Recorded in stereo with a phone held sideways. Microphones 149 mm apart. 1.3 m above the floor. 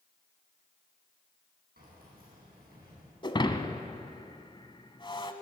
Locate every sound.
1.8 s keys jangling: 80° right, 8.5 m
3.2 s breaking glass: 30° left (ahead or behind), 1.3 m